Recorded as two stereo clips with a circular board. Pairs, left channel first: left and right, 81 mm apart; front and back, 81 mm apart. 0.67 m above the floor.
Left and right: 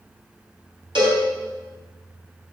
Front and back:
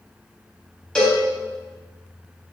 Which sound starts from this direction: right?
A cowbell, at 0.9 s.